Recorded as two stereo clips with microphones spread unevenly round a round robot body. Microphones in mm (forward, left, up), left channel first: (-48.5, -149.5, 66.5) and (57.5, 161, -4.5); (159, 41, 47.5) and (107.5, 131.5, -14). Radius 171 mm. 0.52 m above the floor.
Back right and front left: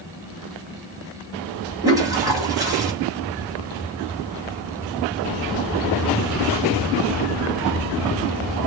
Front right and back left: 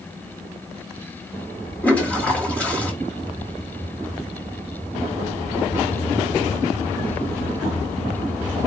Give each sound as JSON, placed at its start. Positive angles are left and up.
{"t": 1.8, "sound": "a toilet flushing", "azimuth_deg": 85, "distance_m": 1.3}